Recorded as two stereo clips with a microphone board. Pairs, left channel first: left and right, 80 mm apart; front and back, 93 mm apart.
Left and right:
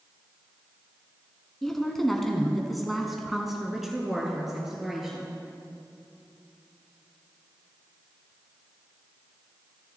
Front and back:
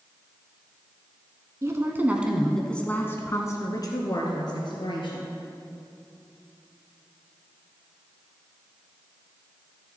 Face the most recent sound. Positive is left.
turn(degrees=-5)